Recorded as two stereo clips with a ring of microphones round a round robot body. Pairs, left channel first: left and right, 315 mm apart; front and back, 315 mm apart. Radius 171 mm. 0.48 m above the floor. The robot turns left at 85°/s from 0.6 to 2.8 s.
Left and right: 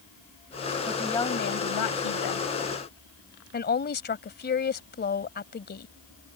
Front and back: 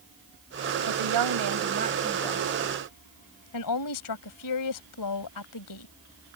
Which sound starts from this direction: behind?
A woman speaking, at 0.9 s.